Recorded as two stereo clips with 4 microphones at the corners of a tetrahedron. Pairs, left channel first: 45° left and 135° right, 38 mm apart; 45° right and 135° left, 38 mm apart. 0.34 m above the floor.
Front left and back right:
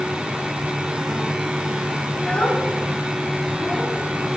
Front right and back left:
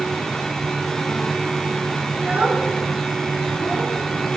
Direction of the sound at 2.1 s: 85° left.